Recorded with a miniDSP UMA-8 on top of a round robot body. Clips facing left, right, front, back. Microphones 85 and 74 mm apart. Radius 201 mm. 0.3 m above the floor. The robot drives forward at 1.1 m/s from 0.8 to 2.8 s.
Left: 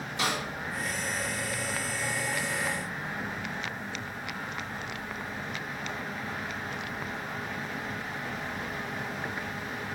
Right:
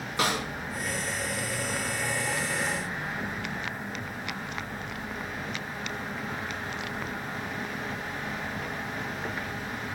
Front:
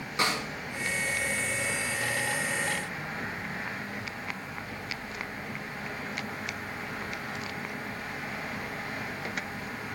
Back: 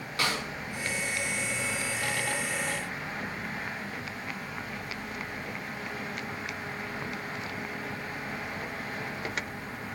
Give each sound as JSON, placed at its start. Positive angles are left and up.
{"t": 0.2, "sound": "a snare drum", "azimuth_deg": -65, "distance_m": 5.5}